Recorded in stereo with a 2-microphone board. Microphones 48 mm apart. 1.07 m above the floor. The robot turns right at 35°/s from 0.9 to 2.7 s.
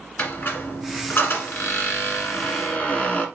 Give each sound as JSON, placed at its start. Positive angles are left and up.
{"t": 0.2, "sound": "a squeak", "azimuth_deg": 75, "distance_m": 1.6}